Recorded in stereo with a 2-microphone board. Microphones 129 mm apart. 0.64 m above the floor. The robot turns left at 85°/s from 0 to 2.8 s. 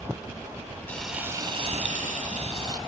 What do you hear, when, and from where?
0.9 s frying: 15° left, 1.2 m; by 2.8 s 145° right, 1.2 m